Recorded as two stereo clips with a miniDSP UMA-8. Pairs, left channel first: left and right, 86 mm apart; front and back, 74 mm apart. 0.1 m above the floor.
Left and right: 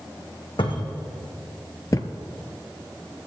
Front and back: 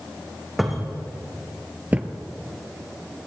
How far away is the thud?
About 0.8 m.